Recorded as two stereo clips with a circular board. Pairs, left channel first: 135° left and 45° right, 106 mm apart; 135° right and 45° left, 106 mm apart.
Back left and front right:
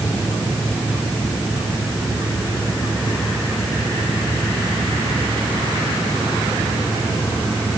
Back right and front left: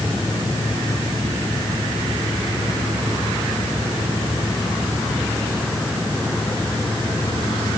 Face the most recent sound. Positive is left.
No sound to turn to.